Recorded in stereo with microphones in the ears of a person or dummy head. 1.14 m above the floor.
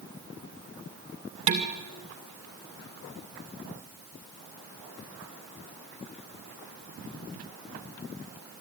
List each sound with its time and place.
1.5 s dishes clattering: 35° right (ahead or behind), 1.9 m